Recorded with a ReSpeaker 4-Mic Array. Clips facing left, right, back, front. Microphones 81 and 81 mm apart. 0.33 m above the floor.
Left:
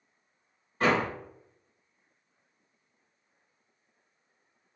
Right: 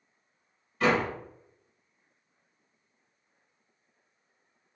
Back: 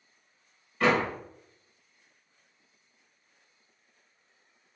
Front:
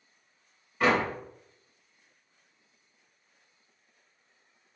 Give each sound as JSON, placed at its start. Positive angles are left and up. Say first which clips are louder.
{"t": 0.8, "sound": "a door slam", "louder": "even, even", "azimuth_deg": 70, "distance_m": 1.2}